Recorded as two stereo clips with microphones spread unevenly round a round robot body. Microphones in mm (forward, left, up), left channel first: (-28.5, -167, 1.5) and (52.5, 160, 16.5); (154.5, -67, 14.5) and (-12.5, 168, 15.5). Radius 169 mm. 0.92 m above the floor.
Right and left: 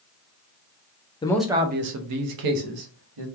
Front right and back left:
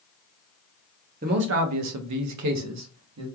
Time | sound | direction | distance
1.2 | a man speaking | 175° right | 0.5 m